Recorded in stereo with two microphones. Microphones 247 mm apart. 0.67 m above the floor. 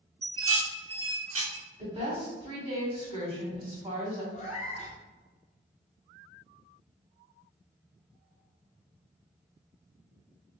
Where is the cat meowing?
30° left (ahead or behind), 1.2 m.